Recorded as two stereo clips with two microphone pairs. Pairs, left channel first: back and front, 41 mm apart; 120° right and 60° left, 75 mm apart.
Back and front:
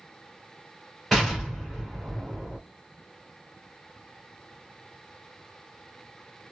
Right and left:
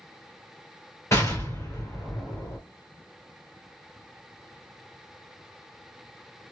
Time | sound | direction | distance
1.1 | an explosion | 95° right | 2 m